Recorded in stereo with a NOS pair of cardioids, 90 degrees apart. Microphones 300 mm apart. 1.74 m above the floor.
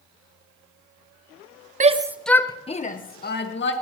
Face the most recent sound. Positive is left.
turn(degrees=40)